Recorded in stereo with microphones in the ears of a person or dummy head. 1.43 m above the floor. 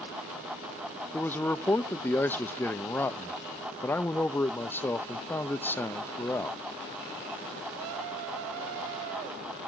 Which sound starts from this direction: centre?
A man speaking, at 1.1 s.